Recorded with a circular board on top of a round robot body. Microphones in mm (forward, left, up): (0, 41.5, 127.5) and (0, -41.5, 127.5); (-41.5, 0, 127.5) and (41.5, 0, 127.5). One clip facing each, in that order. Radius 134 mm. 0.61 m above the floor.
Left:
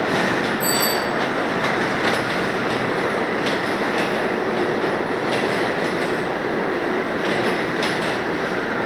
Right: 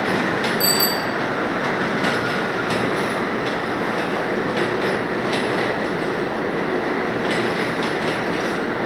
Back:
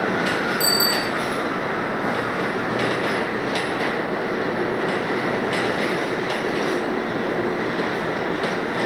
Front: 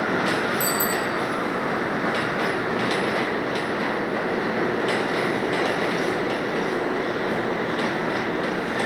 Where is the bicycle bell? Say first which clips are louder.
Left 1 dB, back 1 dB; 100° right, 9 m.